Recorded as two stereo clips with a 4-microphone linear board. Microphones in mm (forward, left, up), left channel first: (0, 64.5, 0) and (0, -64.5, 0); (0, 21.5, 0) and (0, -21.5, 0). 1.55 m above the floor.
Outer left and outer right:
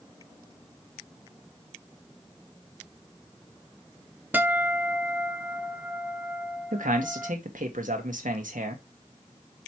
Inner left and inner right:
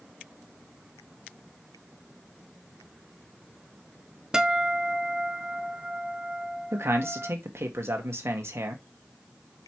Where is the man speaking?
75° right (ahead or behind), 1.5 m.